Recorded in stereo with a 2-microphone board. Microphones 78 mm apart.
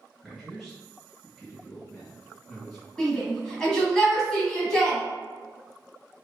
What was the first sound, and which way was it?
A man speaking, centre (ahead or behind).